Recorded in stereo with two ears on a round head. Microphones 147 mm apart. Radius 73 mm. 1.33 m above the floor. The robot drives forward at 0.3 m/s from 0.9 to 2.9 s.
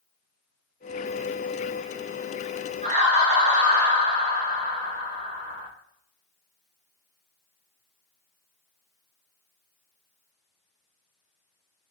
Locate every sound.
2.8 s laughter: 40° right (ahead or behind), 0.6 m